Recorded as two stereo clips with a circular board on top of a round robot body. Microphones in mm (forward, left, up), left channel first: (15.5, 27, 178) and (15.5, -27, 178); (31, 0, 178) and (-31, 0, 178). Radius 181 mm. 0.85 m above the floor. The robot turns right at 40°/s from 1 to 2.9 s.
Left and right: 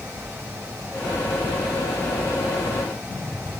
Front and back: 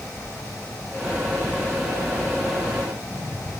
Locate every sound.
Only background noise.